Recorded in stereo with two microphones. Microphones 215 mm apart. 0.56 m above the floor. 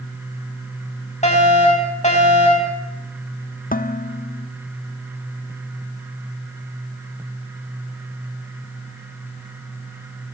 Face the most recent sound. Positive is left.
turn(degrees=40)  # may be behind; listen again after turning